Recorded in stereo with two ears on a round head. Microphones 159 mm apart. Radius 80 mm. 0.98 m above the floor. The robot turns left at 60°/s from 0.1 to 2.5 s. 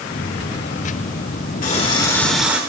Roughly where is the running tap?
Ahead left.